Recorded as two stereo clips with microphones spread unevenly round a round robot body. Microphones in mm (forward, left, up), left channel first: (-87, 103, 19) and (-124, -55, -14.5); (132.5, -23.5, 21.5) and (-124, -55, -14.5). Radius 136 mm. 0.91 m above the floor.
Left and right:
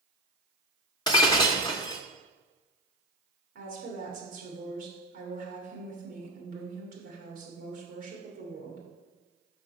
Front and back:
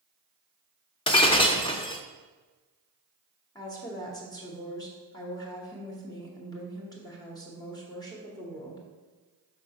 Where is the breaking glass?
55° left, 0.5 m.